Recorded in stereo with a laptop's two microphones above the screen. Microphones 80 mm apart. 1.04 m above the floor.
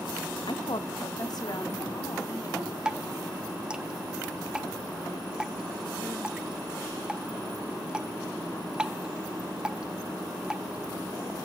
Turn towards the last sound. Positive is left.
turn(degrees=-15)  # may be behind; listen again after turning